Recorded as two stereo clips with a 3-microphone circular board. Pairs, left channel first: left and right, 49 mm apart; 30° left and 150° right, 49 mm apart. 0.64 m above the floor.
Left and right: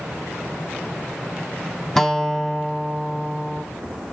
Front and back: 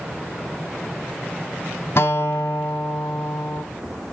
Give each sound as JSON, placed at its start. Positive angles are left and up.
{"t": 2.0, "sound": "a guitar", "azimuth_deg": 5, "distance_m": 1.3}